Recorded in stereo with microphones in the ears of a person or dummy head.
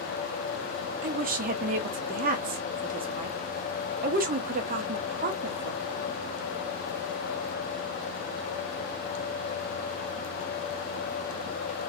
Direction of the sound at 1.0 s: 45° right (ahead or behind).